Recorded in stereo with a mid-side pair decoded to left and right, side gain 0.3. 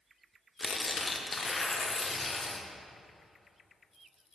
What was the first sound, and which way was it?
Tearing paper, 40° left.